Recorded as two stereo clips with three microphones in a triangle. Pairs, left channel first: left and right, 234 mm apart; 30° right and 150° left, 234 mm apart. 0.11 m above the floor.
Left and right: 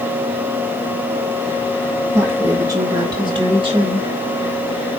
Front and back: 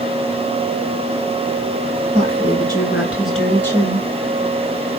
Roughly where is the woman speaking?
Behind.